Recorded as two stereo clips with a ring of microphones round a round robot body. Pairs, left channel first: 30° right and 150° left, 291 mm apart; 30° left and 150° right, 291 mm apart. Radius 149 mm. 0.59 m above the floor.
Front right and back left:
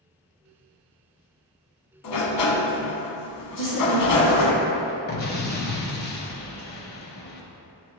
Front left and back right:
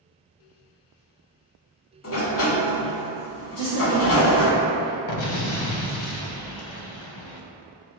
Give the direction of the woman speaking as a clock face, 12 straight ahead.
12 o'clock.